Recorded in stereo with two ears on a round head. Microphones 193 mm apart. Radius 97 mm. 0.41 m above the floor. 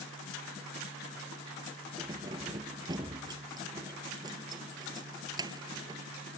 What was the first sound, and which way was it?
Keys jangling, 20° right (ahead or behind).